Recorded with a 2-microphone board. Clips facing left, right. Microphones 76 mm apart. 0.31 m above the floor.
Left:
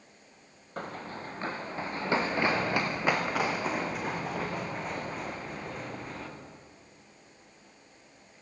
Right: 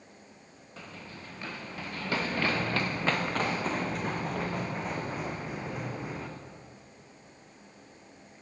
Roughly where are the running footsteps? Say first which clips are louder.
Left 8 dB; left.